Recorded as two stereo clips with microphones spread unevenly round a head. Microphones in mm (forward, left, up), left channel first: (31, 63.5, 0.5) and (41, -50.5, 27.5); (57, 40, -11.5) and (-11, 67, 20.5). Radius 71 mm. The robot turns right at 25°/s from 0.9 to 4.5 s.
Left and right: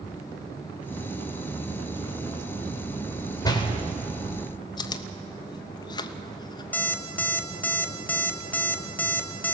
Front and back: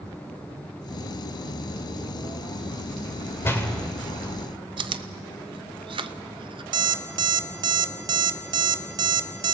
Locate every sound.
3.4 s a door slam: 35° left, 3.5 m; by 3.7 s 45° left, 3.5 m
4.8 s chewing: 140° left, 0.8 m
6.7 s an alarm clock: 175° left, 0.8 m